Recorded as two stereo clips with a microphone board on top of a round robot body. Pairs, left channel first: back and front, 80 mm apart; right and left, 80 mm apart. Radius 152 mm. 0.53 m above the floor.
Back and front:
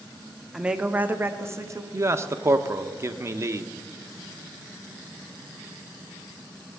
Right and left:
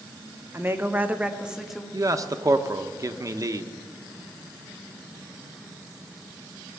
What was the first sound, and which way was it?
A woman speaking, 75° left.